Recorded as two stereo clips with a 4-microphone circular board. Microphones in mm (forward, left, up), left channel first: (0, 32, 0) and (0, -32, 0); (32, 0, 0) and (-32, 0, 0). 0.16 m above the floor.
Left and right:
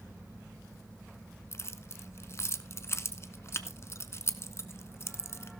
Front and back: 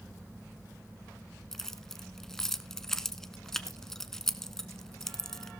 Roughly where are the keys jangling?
Left.